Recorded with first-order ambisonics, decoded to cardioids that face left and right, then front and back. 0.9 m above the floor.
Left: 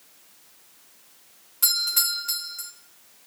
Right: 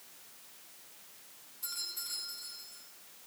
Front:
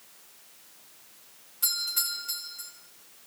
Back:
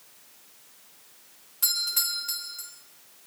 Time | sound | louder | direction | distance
1.6 | a doorbell | left 17 dB, back 3 dB | 110° left | 5 m